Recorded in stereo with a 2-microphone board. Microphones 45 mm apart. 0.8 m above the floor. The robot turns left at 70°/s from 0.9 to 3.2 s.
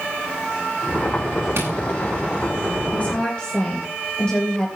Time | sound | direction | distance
1.6 | tapping | 65° right (ahead or behind) | 4.5 m
2.9 | a woman speaking | 40° left (ahead or behind) | 3.5 m